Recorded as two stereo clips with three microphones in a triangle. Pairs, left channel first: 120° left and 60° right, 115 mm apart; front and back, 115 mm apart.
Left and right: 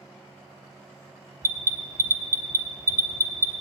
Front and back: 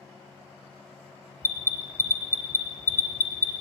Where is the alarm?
120° right, 1.2 m.